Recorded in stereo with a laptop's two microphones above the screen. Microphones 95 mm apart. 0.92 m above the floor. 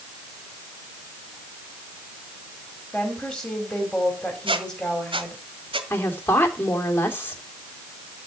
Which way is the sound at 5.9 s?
25° left (ahead or behind).